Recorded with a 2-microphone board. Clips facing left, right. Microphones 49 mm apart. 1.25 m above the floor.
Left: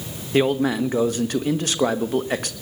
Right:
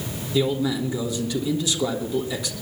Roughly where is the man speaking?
Left.